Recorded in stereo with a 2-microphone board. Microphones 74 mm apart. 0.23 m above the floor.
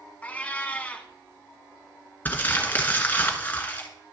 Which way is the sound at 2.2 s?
25° left (ahead or behind).